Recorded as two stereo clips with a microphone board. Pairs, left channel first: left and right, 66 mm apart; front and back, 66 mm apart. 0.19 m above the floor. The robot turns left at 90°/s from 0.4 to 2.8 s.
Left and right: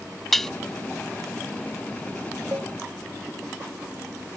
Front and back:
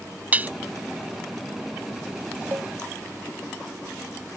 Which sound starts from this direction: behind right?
A cowbell, at 2.5 s.